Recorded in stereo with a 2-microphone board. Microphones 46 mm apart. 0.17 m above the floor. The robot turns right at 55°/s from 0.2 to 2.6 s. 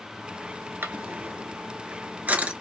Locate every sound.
0.8 s a drawer: 50° right (ahead or behind), 0.8 m; by 2.5 s 25° right (ahead or behind), 0.8 m